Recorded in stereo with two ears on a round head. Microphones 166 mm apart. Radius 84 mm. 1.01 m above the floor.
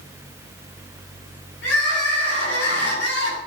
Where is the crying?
60° left (ahead or behind), 7 m.